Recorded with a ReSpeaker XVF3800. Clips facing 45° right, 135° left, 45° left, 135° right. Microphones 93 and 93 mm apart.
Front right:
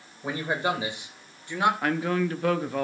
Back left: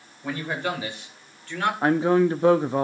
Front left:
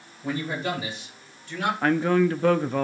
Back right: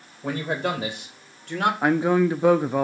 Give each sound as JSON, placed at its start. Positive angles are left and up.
{"t": 0.2, "sound": "a man speaking", "azimuth_deg": -115, "distance_m": 3.5}
{"t": 1.8, "sound": "a man speaking", "azimuth_deg": 165, "distance_m": 0.6}